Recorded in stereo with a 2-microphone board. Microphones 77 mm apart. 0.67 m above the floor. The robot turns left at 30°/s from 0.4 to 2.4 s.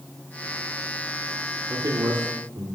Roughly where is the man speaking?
Right.